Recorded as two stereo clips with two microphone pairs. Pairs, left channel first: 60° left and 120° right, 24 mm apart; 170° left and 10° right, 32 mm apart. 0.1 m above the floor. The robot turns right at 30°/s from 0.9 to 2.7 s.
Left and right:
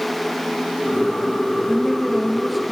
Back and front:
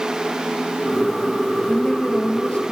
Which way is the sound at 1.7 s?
120° left.